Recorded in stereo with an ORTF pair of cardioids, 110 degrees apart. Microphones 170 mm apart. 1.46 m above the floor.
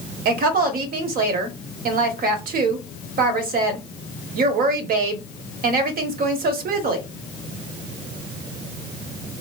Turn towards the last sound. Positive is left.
turn(degrees=-65)